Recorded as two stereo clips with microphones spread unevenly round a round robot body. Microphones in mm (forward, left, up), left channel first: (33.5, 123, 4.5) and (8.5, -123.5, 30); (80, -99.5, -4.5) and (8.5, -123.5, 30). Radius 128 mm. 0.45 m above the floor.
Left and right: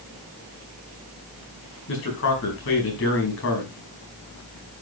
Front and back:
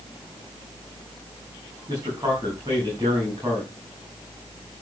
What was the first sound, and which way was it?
A man speaking, 120° left.